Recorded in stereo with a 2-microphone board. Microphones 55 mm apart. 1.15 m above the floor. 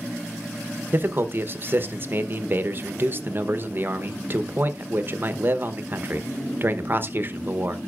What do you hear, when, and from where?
0.9 s a man speaking: 40° right (ahead or behind), 0.8 m